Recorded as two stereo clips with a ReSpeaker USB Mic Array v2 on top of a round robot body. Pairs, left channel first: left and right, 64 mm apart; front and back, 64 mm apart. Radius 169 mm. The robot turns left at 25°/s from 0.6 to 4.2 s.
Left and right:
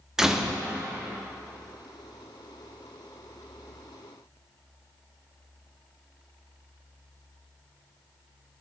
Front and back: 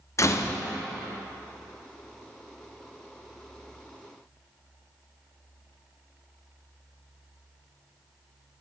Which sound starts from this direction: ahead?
A door slam, at 0.2 s.